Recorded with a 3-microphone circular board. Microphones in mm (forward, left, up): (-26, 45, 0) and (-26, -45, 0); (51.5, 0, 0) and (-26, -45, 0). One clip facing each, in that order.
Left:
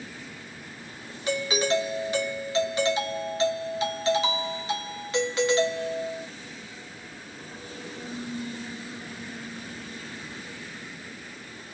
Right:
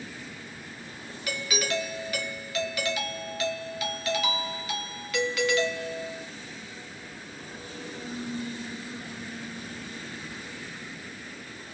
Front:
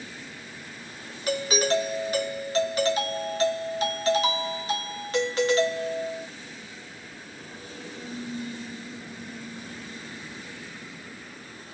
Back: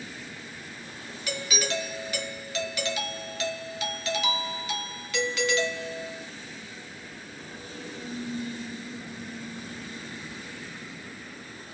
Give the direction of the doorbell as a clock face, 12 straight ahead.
10 o'clock.